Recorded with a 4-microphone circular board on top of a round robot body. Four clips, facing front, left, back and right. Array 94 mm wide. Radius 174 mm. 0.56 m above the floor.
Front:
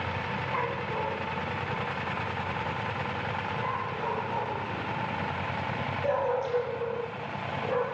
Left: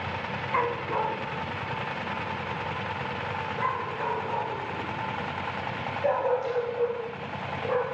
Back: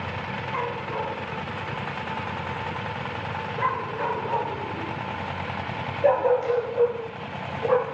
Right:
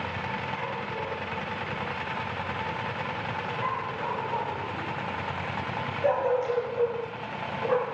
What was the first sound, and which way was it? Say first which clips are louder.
A dog barking: left 6 dB, back 3 dB; 95° left.